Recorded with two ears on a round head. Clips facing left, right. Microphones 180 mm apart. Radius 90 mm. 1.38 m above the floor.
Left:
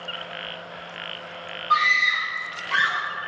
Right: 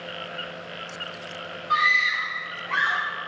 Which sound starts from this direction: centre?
A scream, at 1.7 s.